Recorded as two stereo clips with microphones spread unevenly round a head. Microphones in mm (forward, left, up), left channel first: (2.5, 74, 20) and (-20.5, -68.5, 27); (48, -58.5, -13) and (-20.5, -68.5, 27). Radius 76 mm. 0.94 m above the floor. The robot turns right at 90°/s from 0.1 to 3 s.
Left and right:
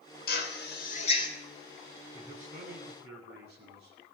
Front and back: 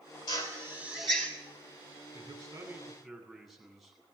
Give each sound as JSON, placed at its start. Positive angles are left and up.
{"t": 0.3, "sound": "a drill", "azimuth_deg": 55, "distance_m": 3.0}
{"t": 2.1, "sound": "a man speaking", "azimuth_deg": -160, "distance_m": 8.5}